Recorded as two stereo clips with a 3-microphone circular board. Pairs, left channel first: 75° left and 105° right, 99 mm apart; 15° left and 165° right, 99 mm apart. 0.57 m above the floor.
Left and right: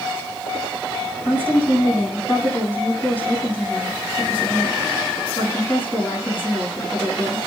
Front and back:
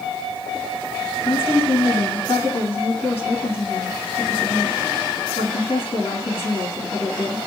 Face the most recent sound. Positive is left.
turn(degrees=0)